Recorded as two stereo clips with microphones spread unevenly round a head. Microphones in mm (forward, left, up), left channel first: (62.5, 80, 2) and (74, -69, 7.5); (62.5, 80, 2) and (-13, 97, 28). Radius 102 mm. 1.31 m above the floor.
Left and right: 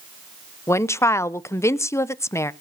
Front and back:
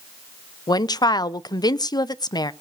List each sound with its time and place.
0.7 s a woman speaking: 20° left, 0.6 m